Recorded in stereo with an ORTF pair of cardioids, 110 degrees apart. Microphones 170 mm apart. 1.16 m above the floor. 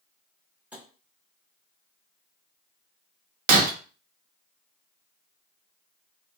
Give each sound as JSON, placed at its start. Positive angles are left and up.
{"t": 0.7, "sound": "tapping", "azimuth_deg": -10, "distance_m": 0.8}
{"t": 3.5, "sound": "breaking glass", "azimuth_deg": -65, "distance_m": 0.6}